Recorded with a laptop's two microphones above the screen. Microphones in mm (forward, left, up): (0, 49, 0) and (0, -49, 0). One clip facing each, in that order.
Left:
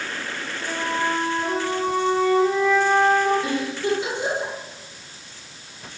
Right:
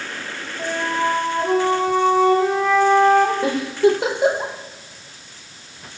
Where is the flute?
80° right, 2 m.